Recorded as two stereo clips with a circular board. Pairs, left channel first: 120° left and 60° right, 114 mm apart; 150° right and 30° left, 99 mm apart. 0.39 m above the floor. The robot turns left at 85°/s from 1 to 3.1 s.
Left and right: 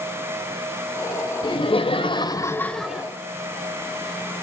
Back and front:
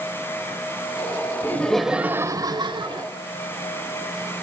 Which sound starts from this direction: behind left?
Laughter, at 1.4 s.